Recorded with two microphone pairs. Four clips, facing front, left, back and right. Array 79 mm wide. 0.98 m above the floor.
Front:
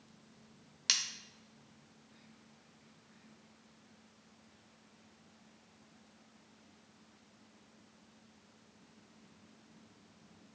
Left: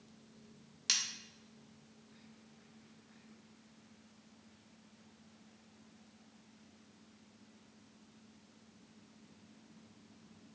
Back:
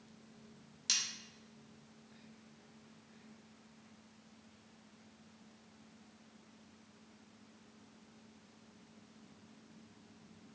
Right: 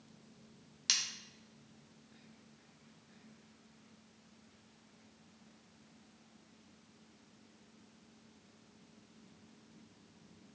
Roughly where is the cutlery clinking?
Ahead.